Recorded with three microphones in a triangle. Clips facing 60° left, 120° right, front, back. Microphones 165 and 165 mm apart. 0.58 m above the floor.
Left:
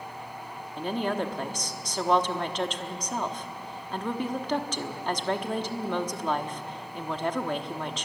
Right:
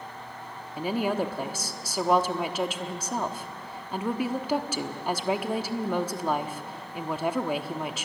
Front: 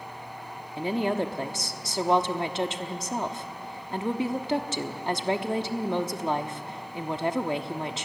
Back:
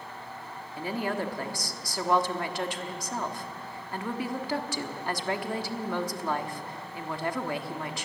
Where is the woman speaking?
45° right, 1.2 m.